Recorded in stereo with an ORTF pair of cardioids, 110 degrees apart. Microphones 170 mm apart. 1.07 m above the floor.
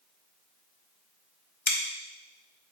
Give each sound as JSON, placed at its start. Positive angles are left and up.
{"t": 1.7, "sound": "scissors", "azimuth_deg": 10, "distance_m": 1.0}